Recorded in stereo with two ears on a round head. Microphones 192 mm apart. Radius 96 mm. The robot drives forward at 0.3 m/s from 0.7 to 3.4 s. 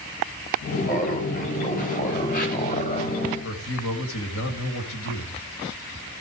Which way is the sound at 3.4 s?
70° left (ahead or behind).